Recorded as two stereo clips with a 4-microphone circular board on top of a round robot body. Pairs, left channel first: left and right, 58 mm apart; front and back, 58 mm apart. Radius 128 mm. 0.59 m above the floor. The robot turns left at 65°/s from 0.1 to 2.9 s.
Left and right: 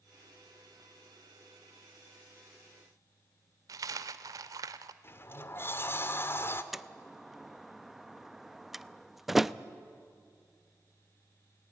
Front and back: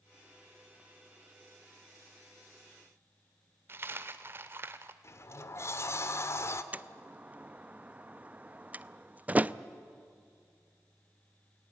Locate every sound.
3.7 s a dropped coin: 125° right, 0.6 m
5.0 s a sliding door: 40° left, 1.3 m
6.7 s a door slam: 170° right, 0.7 m